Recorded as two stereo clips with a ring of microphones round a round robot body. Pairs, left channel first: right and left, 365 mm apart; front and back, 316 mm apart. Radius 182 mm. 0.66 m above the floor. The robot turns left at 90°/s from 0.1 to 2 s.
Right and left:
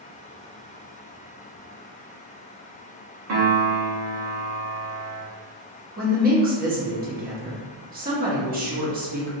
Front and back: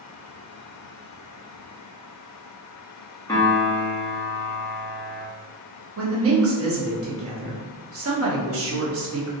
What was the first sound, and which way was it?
A piano, 80° left.